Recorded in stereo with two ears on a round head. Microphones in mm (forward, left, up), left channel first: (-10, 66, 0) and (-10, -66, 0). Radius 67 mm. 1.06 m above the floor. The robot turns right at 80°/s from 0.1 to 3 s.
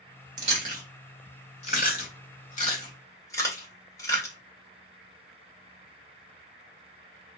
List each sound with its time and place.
0.4 s chewing: 55° right (ahead or behind), 1.8 m; by 4.3 s 25° left (ahead or behind), 1.8 m